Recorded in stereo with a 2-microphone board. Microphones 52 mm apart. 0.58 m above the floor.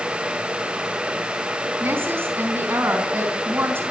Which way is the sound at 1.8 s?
50° right (ahead or behind).